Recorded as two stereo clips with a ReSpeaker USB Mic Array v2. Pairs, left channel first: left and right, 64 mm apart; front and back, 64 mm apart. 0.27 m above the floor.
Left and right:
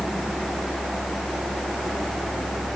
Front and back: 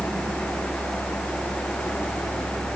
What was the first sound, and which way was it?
Only background noise.